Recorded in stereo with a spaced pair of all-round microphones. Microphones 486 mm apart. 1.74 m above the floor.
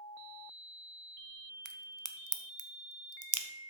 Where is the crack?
40° right (ahead or behind), 0.7 m.